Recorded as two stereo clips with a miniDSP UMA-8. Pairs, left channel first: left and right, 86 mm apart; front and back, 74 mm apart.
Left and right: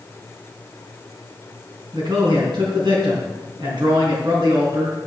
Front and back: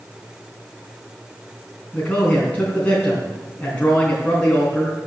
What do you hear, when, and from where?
1.9 s a man speaking: 70° right, 3.5 m